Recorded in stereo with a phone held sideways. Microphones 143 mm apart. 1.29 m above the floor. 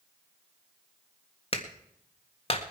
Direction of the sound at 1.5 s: 40° left (ahead or behind).